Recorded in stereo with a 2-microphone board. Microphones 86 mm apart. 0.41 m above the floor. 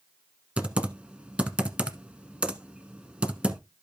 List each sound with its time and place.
0.6 s typing on a keyboard: 15° right (ahead or behind), 1.0 m